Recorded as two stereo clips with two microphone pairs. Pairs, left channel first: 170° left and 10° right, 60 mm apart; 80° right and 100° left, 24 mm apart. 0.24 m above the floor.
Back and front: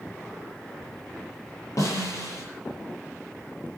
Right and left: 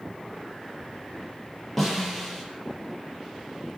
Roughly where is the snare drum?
Behind.